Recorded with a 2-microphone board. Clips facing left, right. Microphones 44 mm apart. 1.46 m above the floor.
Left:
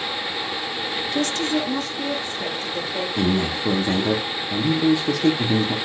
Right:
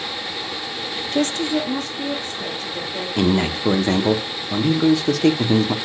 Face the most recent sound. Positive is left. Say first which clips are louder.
# right 4 dB
turn(degrees=-70)  # may be behind; listen again after turning